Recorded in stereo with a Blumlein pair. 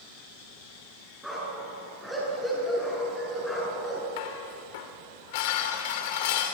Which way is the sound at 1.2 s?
Straight ahead.